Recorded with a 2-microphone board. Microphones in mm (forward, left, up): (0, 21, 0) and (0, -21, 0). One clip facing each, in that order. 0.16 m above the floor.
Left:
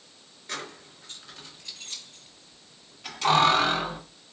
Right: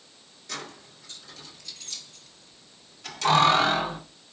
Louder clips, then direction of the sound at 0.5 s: Left 1 dB; 35° left (ahead or behind).